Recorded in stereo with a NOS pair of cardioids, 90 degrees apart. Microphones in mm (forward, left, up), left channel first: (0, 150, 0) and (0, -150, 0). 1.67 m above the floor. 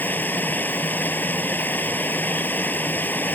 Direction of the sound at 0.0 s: 5° left.